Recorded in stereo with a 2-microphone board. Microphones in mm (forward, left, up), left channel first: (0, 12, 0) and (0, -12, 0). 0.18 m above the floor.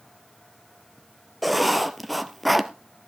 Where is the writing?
Centre (ahead or behind), 1.2 m.